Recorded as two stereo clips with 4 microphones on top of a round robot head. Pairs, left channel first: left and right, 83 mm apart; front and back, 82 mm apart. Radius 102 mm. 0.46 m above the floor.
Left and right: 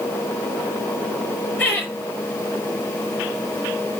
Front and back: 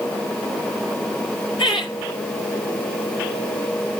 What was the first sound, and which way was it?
Laughter, 25° left.